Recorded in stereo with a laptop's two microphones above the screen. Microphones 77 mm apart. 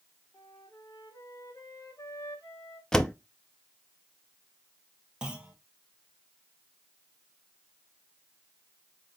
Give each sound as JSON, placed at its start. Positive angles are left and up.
{"t": 0.3, "sound": "a flute", "side_deg": 45, "distance_m": 1.9}
{"t": 2.9, "sound": "a door slam", "side_deg": 10, "distance_m": 0.5}
{"t": 5.2, "sound": "a clunk", "side_deg": -15, "distance_m": 0.8}